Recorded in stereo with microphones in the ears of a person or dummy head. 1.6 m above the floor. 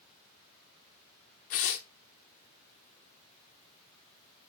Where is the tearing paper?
40° left (ahead or behind), 0.8 m.